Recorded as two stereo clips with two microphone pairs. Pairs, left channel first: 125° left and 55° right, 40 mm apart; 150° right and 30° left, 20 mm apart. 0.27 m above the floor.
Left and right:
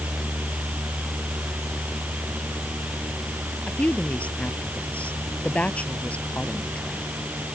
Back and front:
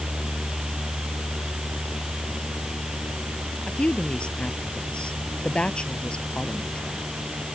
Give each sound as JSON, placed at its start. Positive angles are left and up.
{"t": 3.7, "sound": "a woman speaking", "azimuth_deg": 180}